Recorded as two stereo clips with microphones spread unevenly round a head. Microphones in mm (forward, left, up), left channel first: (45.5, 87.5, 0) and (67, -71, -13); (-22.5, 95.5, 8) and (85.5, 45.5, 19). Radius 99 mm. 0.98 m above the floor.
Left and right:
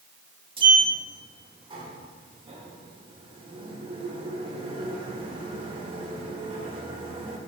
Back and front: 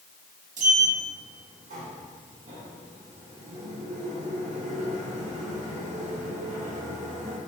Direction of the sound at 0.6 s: 30° right.